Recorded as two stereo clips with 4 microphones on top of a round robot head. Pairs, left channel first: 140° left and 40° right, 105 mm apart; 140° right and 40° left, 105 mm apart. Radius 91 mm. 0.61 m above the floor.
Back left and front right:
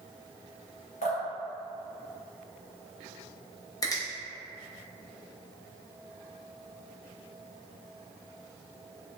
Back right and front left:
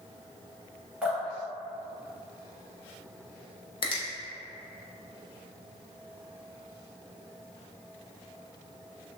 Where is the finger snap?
165° right, 0.8 m.